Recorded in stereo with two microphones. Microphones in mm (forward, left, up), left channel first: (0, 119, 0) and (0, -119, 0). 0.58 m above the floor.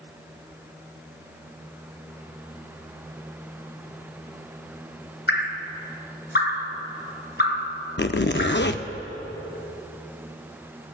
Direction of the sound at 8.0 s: 50° left (ahead or behind).